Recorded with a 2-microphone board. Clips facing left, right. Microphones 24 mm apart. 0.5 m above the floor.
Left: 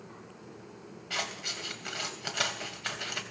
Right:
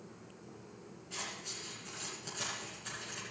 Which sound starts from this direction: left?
Scissors, at 1.1 s.